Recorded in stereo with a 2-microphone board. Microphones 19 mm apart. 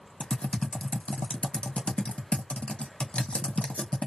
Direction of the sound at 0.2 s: 75° left (ahead or behind).